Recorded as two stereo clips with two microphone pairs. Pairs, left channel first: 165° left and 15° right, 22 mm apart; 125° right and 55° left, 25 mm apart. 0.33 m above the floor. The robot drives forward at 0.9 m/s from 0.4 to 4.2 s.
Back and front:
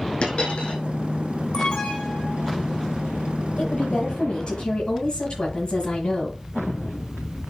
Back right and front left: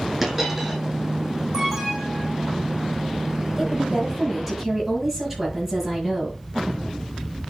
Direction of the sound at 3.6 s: 125° left.